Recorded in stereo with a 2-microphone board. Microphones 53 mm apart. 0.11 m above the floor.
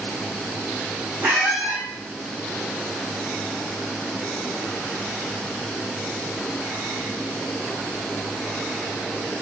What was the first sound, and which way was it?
A squeak, 70° right (ahead or behind).